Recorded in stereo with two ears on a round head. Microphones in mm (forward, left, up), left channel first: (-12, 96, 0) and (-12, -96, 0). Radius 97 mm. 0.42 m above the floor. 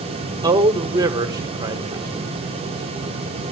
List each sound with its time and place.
0.4 s a man speaking: 20° right (ahead or behind), 1.1 m